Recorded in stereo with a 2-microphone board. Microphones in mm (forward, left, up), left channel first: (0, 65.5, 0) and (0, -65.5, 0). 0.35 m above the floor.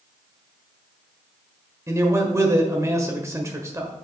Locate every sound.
1.9 s a man speaking: 25° right (ahead or behind), 1.5 m